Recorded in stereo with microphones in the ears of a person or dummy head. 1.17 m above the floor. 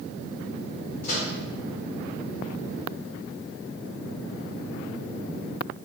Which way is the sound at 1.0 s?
40° left (ahead or behind).